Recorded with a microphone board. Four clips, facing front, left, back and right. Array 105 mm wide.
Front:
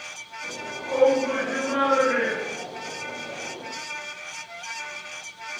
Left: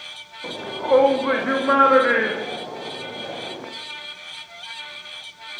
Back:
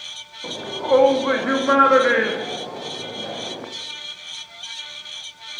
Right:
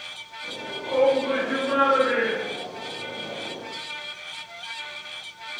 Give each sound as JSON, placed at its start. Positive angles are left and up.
{"t": 0.4, "sound": "a shout", "azimuth_deg": 130, "distance_m": 7.0}